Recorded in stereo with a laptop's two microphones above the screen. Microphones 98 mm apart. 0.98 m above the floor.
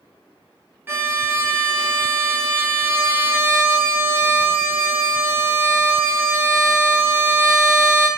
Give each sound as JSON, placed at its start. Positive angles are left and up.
{"t": 0.9, "sound": "a violin", "side_deg": -20, "distance_m": 0.7}